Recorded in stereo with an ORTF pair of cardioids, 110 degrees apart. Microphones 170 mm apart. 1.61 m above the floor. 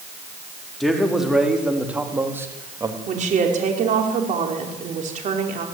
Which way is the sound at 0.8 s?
Straight ahead.